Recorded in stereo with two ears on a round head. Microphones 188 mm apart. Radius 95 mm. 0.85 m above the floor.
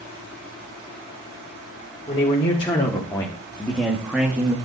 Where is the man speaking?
30° left (ahead or behind), 3 m; by 4.5 s 15° right (ahead or behind), 1.7 m.